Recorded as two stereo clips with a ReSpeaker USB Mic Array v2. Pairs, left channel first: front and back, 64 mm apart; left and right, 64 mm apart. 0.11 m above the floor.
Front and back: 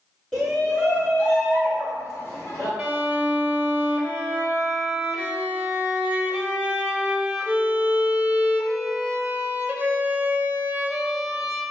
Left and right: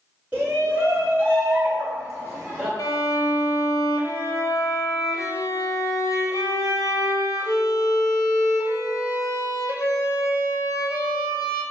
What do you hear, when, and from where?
0.3 s a shout: 80° right, 1.4 m; by 2.7 s 30° right, 2.5 m
2.8 s a violin: 110° left, 0.8 m